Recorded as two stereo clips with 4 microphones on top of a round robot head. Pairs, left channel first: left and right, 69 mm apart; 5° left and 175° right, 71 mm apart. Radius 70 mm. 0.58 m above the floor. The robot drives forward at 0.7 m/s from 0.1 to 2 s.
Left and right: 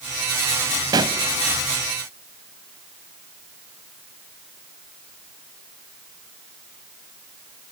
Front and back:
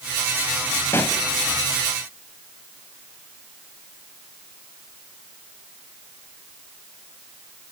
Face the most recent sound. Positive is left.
turn(degrees=-115)